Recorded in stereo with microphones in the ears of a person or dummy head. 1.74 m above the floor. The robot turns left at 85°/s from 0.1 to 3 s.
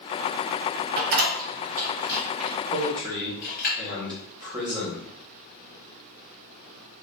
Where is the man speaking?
40° right (ahead or behind), 1.1 m; by 5.1 s 20° right (ahead or behind), 1.1 m.